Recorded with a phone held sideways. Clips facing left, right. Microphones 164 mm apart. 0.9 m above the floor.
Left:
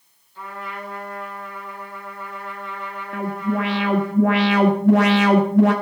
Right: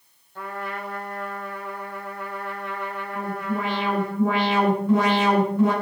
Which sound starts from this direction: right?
A trumpet, at 0.3 s.